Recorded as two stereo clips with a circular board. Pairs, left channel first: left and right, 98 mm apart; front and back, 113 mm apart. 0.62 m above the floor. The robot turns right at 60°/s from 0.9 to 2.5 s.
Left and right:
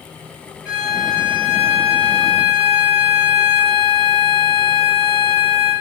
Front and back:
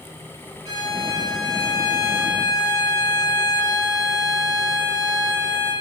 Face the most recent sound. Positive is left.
turn(degrees=-65)